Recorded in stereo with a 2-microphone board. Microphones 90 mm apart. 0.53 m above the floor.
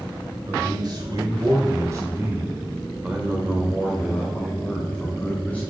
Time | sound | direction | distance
0.5 | a man speaking | 60° right (ahead or behind) | 2.5 m